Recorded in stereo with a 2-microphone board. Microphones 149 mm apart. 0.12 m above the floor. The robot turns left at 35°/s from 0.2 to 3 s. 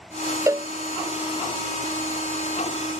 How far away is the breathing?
I don't hear breathing.